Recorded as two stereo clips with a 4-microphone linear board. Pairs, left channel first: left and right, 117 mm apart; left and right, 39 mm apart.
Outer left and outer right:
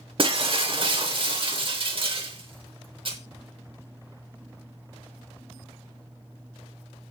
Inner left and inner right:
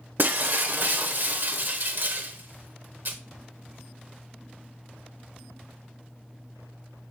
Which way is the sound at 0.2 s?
50° right (ahead or behind).